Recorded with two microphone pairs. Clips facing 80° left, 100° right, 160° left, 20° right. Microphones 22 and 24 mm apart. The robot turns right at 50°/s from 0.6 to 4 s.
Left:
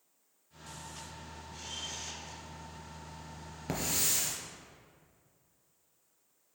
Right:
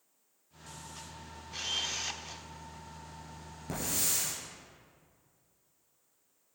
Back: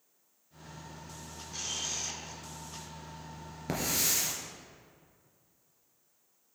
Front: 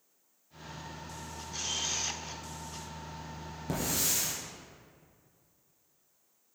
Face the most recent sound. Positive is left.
turn(degrees=140)